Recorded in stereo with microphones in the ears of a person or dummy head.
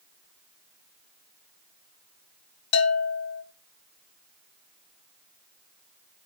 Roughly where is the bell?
Left.